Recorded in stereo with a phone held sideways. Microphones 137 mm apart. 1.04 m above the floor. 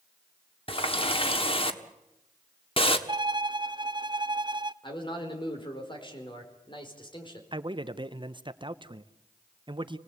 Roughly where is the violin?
Right.